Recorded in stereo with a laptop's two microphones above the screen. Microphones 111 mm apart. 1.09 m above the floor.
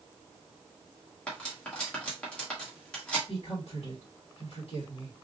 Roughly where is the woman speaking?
Left.